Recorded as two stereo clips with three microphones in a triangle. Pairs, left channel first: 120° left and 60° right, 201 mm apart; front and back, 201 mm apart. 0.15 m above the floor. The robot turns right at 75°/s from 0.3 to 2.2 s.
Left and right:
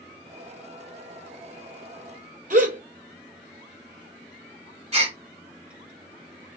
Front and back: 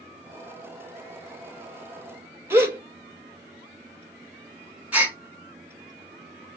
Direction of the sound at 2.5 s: 100° right.